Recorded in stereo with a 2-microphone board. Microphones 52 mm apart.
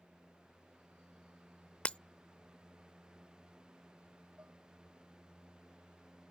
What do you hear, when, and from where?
1.9 s breaking glass: 20° left (ahead or behind)
4.4 s dishes clattering: 30° right (ahead or behind)